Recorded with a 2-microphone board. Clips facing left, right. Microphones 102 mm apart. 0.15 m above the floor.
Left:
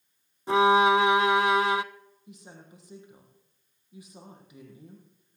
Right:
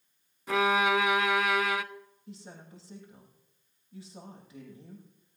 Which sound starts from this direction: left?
A violin, at 0.5 s.